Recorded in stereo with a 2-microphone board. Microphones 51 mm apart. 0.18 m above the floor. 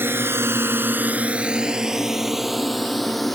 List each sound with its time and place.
0.0 s a drone: 50° right (ahead or behind); by 3.4 s 5° left (ahead or behind)